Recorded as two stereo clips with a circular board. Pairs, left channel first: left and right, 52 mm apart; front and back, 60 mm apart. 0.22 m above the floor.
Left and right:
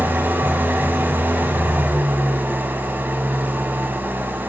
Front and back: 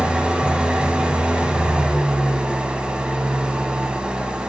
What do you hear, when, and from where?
0.0 s an engine running: 115° right, 0.8 m